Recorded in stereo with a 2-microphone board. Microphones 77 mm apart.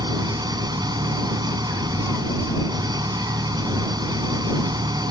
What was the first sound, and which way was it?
An engine running, 65° right (ahead or behind).